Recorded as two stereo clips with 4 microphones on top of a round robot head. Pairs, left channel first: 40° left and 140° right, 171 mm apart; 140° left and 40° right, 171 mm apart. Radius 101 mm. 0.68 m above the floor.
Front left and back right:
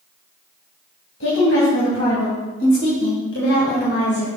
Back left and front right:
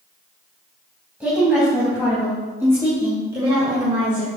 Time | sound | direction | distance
1.2 | a woman speaking | 40° left | 4 m